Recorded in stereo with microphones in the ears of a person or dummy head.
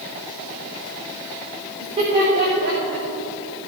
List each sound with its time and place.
1.8 s laughter: 20° right (ahead or behind), 3.5 m; by 3.0 s 40° right (ahead or behind), 4.5 m